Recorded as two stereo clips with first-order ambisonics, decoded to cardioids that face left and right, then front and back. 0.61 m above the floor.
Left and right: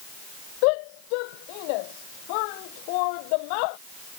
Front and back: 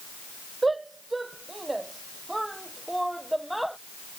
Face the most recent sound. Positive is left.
turn(degrees=90)